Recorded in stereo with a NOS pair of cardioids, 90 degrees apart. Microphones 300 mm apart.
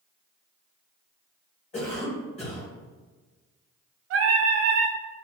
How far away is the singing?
About 0.6 m.